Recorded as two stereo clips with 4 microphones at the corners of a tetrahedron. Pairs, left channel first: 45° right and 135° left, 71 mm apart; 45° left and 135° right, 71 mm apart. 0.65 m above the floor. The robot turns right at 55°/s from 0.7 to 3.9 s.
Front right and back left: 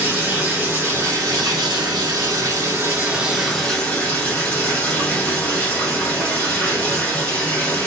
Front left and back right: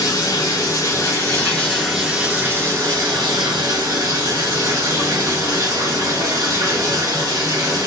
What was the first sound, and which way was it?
Running water, 70° left.